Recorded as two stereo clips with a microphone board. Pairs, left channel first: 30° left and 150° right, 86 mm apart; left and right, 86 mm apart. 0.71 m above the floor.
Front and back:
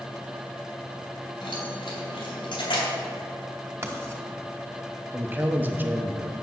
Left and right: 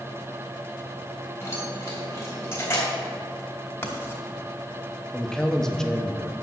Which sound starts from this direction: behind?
A man speaking, at 5.1 s.